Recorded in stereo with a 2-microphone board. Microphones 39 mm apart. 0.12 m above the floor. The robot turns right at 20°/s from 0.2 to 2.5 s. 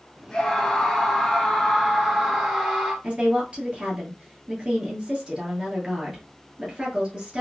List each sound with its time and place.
0.3 s a scream: 150° left, 1.7 m; by 2.9 s 165° right, 1.7 m
3.0 s a woman speaking: 30° right (ahead or behind), 1.9 m